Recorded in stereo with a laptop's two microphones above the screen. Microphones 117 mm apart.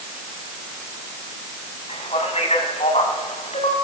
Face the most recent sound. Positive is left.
turn(degrees=70)  # may be behind; listen again after turning